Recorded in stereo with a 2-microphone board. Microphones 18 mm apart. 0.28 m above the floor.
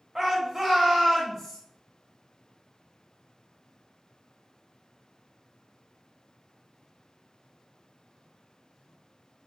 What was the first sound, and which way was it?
A shout, 25° right (ahead or behind).